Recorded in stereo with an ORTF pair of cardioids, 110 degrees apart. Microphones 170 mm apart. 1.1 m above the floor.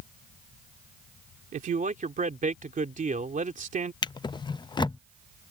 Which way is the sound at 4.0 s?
25° left.